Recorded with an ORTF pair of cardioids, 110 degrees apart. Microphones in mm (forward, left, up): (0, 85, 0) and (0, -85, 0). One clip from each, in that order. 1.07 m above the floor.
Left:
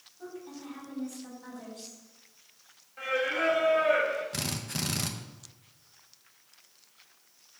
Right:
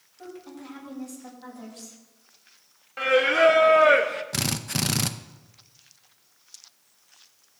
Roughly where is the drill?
Ahead right.